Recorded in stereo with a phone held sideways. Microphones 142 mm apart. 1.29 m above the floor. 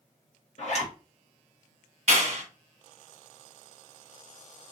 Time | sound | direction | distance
0.6 | a zipper | 50° left (ahead or behind) | 1.1 m
2.1 | a clap | 50° right (ahead or behind) | 1.0 m